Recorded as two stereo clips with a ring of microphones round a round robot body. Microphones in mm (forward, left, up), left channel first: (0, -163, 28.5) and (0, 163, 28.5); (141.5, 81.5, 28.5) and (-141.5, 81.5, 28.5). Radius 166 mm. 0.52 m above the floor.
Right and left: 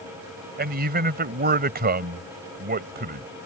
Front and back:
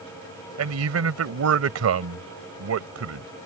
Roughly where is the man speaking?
Behind left.